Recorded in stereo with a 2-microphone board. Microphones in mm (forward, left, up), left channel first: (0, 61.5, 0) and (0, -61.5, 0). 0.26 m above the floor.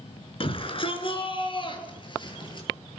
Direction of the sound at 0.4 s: 45° left (ahead or behind).